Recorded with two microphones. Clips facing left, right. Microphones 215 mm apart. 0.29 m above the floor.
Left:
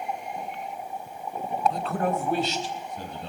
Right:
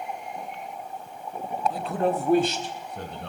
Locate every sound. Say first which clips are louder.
1.7 s a man speaking: right 2 dB; centre (ahead or behind), 1.0 m; by 3.3 s 70° right (ahead or behind), 2.5 m